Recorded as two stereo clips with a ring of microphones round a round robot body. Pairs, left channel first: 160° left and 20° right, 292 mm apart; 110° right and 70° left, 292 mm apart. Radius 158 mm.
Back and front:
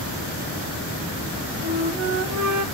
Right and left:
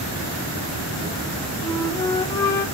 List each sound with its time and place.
1.6 s a flute: 40° right, 1.7 m